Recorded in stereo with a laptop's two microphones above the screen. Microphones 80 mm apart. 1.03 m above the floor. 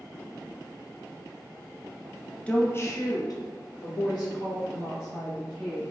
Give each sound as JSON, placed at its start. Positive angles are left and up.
{"t": 2.5, "sound": "a woman speaking", "side_deg": 15, "distance_m": 0.6}